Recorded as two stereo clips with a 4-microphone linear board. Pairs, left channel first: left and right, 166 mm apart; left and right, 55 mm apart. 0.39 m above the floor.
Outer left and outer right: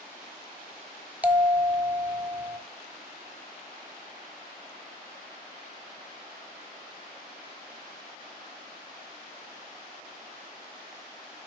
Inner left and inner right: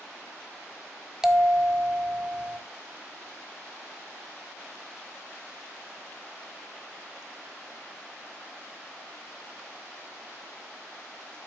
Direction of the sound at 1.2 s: 10° right (ahead or behind).